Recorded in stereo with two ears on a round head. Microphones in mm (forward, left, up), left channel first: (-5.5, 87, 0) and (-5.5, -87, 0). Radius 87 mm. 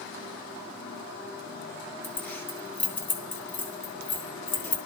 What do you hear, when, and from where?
2.0 s keys jangling: 10° left (ahead or behind), 1.6 m